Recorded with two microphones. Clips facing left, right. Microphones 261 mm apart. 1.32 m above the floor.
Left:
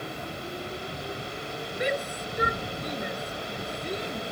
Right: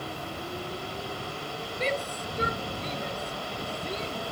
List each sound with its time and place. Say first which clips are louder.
1.8 s a shout: left 2 dB; 15° left (ahead or behind)